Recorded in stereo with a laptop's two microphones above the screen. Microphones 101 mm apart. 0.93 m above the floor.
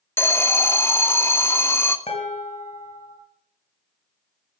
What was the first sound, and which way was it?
An alarm, 25° left (ahead or behind).